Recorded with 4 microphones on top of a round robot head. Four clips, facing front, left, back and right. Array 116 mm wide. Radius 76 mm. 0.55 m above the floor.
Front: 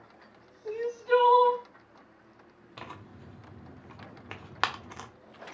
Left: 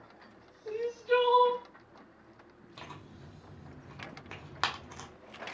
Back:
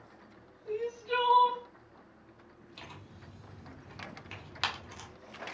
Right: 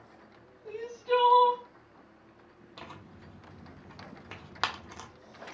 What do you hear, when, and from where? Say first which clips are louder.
0.7 s crying: left 1 dB, front 7 dB; 25° right, 1.6 m
2.8 s tearing paper: right 1 dB, front 7 dB; 10° right, 0.9 m